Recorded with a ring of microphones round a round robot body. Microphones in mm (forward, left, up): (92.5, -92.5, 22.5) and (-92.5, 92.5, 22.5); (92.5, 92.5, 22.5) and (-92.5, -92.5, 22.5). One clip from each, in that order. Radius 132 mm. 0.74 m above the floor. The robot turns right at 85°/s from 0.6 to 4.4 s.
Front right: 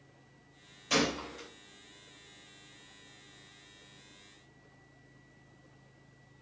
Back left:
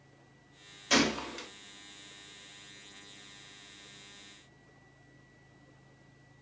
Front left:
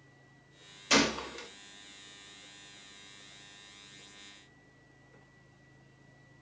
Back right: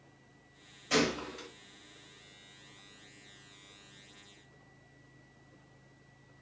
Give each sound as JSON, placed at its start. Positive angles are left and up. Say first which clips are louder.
{"t": 0.9, "sound": "a gunshot", "louder": "back left 2 dB, front left 3 dB", "azimuth_deg": 65, "distance_m": 0.5}